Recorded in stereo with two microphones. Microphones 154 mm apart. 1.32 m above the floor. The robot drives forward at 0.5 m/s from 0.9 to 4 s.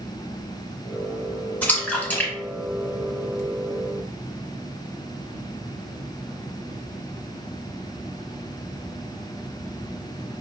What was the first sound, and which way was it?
A splash, 10° left (ahead or behind).